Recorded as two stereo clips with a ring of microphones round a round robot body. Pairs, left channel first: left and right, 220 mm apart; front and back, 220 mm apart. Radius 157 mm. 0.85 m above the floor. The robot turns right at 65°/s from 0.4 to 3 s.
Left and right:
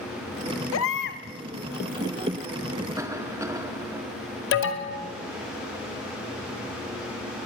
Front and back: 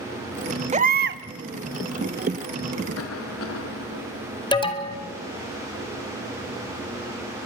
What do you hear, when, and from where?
0.7 s a baby crying: 120° left, 1.1 m; by 1.2 s 150° left, 1.1 m
3.0 s a cough: 15° right, 2.5 m
4.5 s an alarm: 70° left, 2.5 m